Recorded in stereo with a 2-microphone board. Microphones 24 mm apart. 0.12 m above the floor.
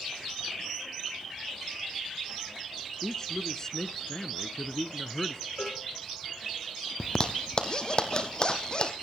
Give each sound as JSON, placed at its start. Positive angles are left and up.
{"t": 3.0, "sound": "a man speaking", "side_deg": 25, "distance_m": 1.1}
{"t": 5.6, "sound": "a cowbell", "side_deg": 60, "distance_m": 8.0}
{"t": 7.0, "sound": "a zipper", "side_deg": 35, "distance_m": 2.5}